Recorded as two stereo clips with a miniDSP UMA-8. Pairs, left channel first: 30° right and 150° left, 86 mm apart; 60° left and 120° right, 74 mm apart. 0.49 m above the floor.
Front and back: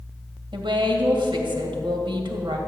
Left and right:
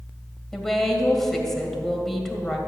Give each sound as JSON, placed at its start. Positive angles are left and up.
{"t": 0.5, "sound": "a woman speaking", "azimuth_deg": 145, "distance_m": 2.0}